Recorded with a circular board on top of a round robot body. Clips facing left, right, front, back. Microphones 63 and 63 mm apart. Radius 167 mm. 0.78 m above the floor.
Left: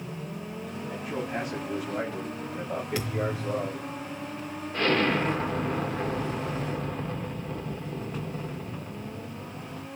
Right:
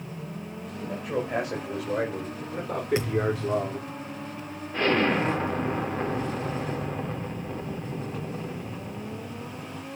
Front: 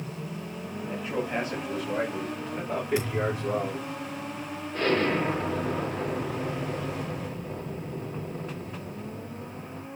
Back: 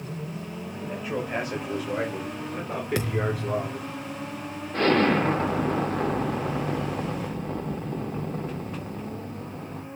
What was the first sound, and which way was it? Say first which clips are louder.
A man speaking: right 5 dB, even; 110° right.